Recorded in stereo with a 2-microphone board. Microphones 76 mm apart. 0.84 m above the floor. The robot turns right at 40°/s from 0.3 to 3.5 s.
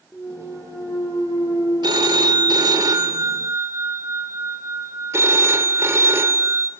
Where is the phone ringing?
105° right, 2.5 m; by 6.7 s 40° right, 2.5 m.